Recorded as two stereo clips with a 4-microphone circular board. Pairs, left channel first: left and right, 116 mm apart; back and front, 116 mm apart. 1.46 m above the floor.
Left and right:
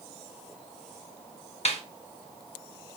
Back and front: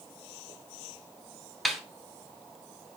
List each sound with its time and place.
1.6 s a snare drum: 90° left, 0.9 m